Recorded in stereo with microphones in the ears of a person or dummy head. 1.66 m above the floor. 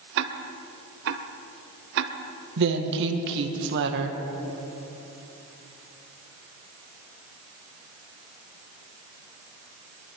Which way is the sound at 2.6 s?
60° right (ahead or behind).